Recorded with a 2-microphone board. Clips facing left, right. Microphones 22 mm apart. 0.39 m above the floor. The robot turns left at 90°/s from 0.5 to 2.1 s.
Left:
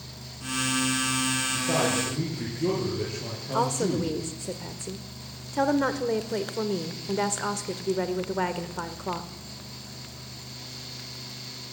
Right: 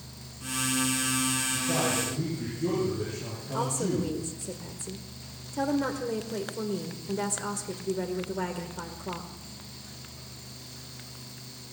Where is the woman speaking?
30° left (ahead or behind), 1.2 m.